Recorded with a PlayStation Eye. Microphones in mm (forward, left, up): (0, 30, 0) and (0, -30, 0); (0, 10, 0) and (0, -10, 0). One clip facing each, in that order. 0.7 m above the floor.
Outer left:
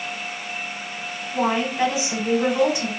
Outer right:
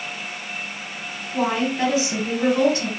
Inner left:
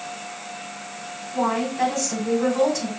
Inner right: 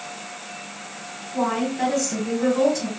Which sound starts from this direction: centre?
A woman speaking, at 1.3 s.